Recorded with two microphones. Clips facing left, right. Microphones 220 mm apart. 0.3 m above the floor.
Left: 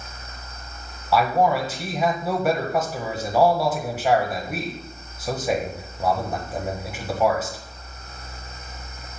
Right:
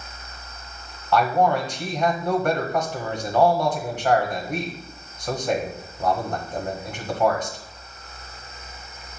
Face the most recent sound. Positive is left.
turn(degrees=5)  # may be behind; listen again after turning